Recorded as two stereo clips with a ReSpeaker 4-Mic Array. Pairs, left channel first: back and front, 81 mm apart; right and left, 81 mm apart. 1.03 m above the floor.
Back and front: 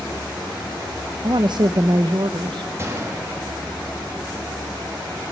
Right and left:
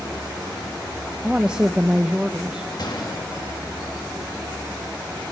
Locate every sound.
1.2 s a woman speaking: 15° left, 0.6 m
2.8 s a gunshot: 60° right, 1.5 m